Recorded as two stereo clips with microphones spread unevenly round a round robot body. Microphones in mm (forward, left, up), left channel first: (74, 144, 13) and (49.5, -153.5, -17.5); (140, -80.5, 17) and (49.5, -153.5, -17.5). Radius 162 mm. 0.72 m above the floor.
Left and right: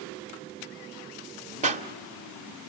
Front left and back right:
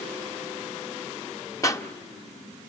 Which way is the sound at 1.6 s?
30° right.